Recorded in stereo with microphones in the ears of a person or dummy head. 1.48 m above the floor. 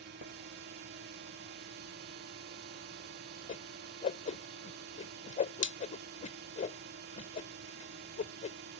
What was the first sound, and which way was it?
A drone, 50° right (ahead or behind).